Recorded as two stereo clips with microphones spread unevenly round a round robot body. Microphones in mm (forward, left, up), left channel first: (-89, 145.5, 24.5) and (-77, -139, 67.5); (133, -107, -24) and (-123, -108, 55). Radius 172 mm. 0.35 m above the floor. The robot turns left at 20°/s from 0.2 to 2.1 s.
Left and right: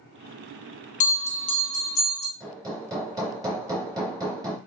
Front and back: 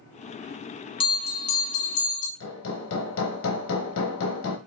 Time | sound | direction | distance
1.0 | a bell | 45° left | 0.7 m
2.4 | hammering | 5° right | 0.9 m